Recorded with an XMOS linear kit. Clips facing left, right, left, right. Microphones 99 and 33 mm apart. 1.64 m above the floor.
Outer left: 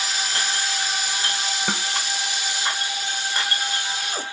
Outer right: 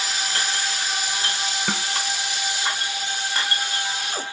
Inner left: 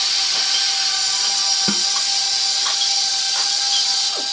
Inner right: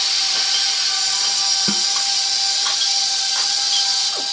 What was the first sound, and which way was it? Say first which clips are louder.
A snare drum: even, even; 5° left (ahead or behind).